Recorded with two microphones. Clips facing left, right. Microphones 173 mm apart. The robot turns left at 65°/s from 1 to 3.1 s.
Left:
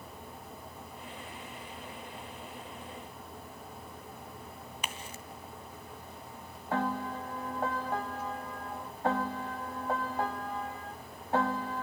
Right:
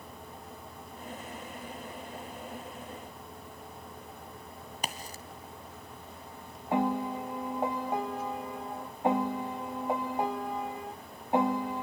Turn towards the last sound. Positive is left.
turn(degrees=-15)  # may be behind; listen again after turning